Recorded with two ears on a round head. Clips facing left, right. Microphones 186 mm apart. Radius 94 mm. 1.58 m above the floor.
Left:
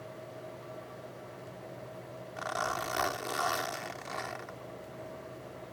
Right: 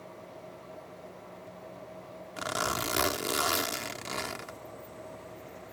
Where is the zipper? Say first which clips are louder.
Right 2 dB; 45° right (ahead or behind).